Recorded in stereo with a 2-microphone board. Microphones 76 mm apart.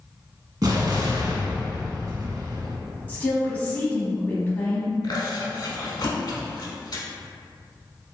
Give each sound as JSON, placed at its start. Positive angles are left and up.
{"t": 0.6, "sound": "an explosion", "side_deg": -50, "distance_m": 0.6}
{"t": 3.1, "sound": "a woman speaking", "side_deg": 20, "distance_m": 1.0}
{"t": 5.0, "sound": "chewing", "side_deg": 55, "distance_m": 0.6}